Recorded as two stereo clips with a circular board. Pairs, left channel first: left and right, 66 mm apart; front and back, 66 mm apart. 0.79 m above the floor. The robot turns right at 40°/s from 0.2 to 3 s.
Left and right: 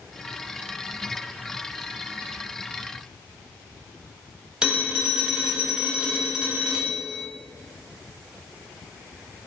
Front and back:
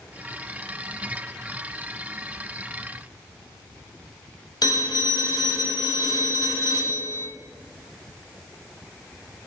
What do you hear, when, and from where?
4.6 s a phone ringing: 15° right, 1.4 m